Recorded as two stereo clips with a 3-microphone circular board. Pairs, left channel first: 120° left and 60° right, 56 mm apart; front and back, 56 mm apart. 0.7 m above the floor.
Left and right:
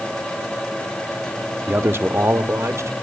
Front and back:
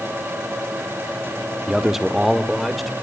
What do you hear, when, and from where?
1.7 s a man speaking: 105° right, 1.1 m; by 2.9 s 90° right, 2.5 m